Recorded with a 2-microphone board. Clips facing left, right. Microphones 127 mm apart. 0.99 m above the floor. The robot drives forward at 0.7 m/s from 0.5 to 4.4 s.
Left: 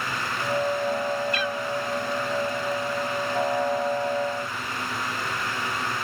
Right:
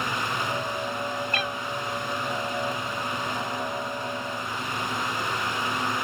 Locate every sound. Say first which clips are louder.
1.3 s a cat meowing: left 2 dB; 50° right (ahead or behind); by 1.6 s 45° right (ahead or behind)